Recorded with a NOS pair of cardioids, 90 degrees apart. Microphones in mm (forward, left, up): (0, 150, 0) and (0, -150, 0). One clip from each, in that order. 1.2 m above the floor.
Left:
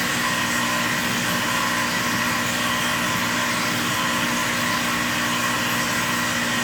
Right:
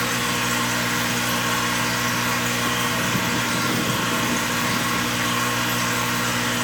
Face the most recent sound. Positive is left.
turn(degrees=-50)